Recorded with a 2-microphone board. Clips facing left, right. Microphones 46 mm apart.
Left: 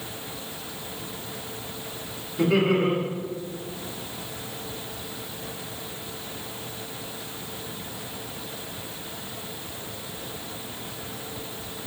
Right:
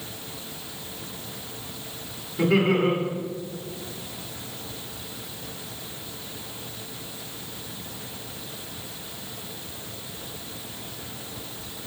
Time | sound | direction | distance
2.4 | laughter | 5° right (ahead or behind) | 1.2 m